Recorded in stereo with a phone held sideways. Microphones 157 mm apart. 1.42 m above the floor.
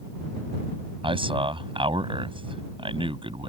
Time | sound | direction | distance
1.0 | a man speaking | 35° right (ahead or behind) | ?